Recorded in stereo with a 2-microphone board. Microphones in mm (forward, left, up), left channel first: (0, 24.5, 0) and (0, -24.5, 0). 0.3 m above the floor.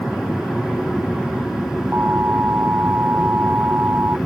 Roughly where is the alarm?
Right.